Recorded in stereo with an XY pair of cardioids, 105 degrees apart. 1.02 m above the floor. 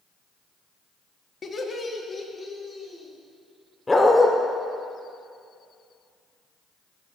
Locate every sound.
1.4 s laughter: 40° left, 1.3 m; by 3.1 s 25° left, 3 m
3.9 s a dog barking: 20° left, 1.3 m